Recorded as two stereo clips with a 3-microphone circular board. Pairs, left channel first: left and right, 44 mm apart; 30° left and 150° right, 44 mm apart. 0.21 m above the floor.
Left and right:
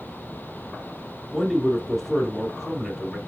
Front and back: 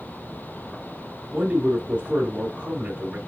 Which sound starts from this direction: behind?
A man speaking, at 1.3 s.